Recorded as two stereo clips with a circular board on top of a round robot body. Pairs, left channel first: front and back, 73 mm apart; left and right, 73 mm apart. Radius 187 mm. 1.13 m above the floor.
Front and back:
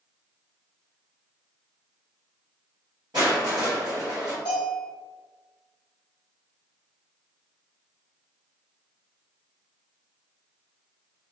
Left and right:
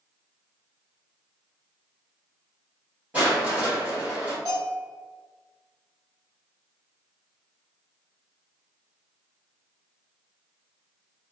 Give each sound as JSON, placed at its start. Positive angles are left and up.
{"t": 3.1, "sound": "crushing", "azimuth_deg": -150, "distance_m": 0.9}
{"t": 4.5, "sound": "a bell", "azimuth_deg": -25, "distance_m": 0.6}